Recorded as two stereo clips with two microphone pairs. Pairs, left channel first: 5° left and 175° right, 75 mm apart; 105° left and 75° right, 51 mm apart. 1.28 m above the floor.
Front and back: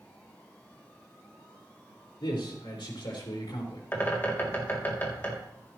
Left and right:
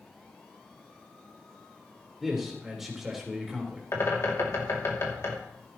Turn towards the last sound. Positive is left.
turn(degrees=70)